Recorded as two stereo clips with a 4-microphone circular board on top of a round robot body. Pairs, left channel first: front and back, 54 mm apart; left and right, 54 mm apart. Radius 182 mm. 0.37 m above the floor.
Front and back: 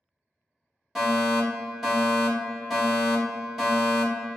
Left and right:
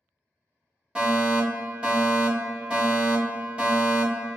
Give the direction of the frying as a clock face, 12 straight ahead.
No frying in this recording.